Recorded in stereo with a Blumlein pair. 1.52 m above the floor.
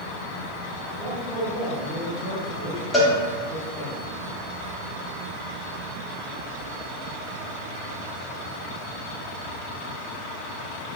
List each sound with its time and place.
1.0 s a man speaking: straight ahead, 1.5 m
2.9 s a cowbell: 10° left, 1.0 m